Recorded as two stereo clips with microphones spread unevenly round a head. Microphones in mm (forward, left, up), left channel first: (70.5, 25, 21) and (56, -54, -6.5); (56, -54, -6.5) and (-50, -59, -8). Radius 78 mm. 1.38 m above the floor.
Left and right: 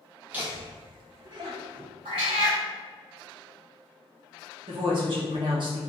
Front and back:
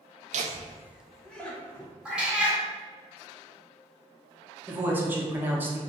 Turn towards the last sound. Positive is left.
turn(degrees=-105)